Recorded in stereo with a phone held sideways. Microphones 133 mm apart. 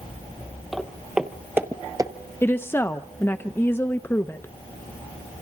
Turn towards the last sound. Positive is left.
turn(degrees=15)  # may be behind; listen again after turning